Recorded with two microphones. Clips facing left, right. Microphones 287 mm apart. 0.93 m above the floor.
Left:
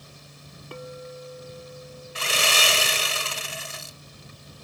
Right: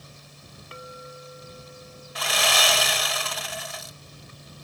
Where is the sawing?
30° left (ahead or behind).